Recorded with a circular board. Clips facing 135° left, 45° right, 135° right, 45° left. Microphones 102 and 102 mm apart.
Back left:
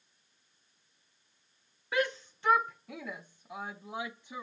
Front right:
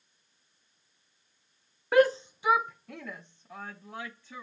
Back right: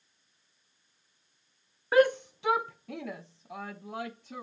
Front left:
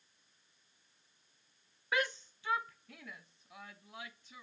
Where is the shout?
85° right; by 4.4 s 155° right.